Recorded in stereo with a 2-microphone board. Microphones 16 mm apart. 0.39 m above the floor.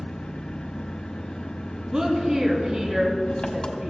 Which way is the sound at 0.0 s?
70° left (ahead or behind).